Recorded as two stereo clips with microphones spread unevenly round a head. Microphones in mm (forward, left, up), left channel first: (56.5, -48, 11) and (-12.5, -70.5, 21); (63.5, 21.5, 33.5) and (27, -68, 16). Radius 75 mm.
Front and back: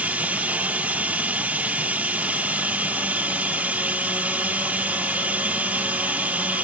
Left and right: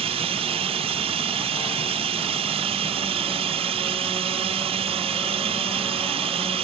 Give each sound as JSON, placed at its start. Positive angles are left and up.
{"t": 0.0, "sound": "running water", "azimuth_deg": -95}